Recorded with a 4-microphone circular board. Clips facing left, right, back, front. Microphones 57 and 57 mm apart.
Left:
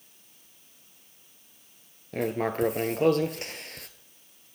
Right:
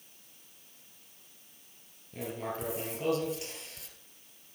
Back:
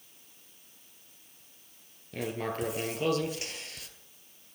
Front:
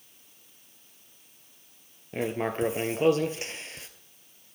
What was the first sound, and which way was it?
Writing, 60° left.